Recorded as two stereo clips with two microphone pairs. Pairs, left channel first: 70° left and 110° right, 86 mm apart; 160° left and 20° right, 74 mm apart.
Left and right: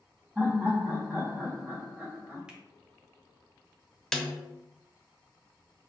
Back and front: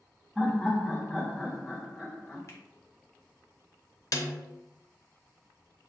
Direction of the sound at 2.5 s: 175° left.